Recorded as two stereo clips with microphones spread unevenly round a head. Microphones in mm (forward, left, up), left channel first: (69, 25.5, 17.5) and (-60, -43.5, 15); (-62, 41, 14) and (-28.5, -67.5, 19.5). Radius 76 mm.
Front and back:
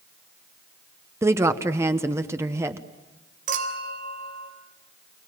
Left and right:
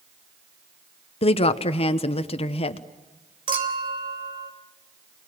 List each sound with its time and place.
1.2 s a woman speaking: 135° left, 1.0 m
3.5 s a clink: 115° right, 3.5 m